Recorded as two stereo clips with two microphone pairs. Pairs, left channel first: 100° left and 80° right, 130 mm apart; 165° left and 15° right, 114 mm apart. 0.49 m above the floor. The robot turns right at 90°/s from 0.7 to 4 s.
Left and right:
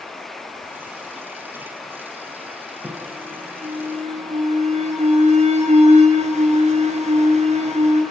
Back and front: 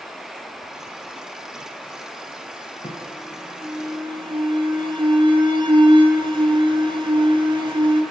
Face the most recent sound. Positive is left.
turn(degrees=-55)